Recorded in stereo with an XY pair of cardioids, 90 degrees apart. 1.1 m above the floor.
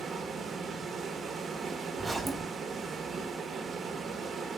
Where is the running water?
55° right, 0.9 m.